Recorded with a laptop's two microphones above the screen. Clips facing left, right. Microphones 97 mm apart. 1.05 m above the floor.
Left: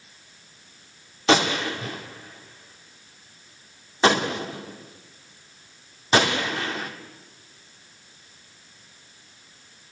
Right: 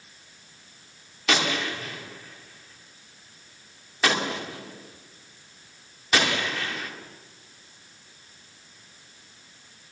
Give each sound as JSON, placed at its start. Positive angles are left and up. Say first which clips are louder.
{"t": 1.3, "sound": "a gunshot", "louder": "left 5 dB", "side_deg": 30, "distance_m": 2.0}